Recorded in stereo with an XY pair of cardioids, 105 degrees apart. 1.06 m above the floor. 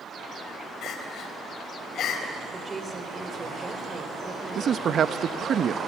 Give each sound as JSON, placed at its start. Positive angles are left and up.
{"t": 0.8, "sound": "crying", "azimuth_deg": 70, "distance_m": 4.0}
{"t": 2.5, "sound": "a woman speaking", "azimuth_deg": -25, "distance_m": 3.0}
{"t": 4.5, "sound": "a man speaking", "azimuth_deg": -55, "distance_m": 0.9}